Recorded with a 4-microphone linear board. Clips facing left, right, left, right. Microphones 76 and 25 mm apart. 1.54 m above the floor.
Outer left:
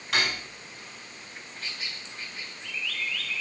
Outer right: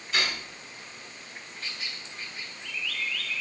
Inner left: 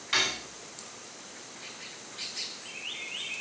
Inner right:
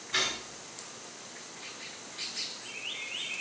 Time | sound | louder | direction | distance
0.1 | cutlery clinking | outer left 2 dB, inner left 3 dB | 80° left | 8 m